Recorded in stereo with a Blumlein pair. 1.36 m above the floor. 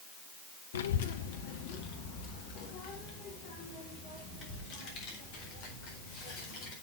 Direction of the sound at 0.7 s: 65° left.